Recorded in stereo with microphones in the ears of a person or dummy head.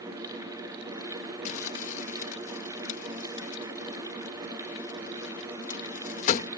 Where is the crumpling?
45° left (ahead or behind).